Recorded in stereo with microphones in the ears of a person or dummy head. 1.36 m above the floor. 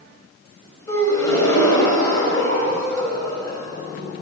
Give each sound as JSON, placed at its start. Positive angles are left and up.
{"t": 0.9, "sound": "a gasp", "side_deg": 10, "distance_m": 4.0}